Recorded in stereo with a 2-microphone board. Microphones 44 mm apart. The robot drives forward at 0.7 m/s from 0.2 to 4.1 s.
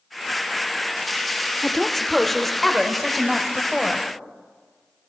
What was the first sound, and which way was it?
A woman speaking, 5° left (ahead or behind).